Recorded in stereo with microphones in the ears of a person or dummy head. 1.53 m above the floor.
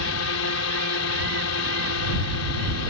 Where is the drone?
75° left (ahead or behind).